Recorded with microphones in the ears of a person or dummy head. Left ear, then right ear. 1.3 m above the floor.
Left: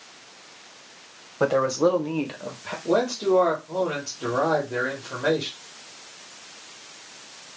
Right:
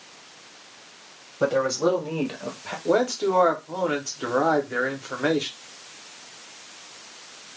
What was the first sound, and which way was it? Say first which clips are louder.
A man speaking: left 1 dB; 40° left (ahead or behind).